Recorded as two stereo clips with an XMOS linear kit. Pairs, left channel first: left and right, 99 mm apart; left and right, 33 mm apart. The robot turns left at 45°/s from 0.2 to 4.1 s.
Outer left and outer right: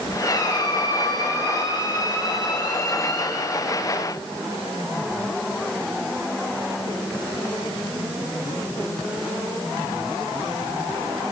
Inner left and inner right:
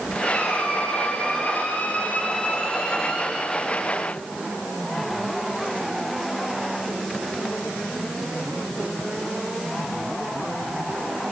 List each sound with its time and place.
0.2 s a squeak: 130° left, 2.5 m; by 3.5 s 20° right, 2.5 m